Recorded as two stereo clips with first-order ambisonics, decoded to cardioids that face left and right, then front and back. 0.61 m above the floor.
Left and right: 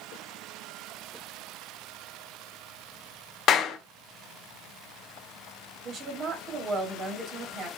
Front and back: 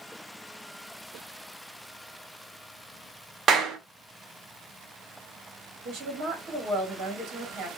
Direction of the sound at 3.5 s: 130° left.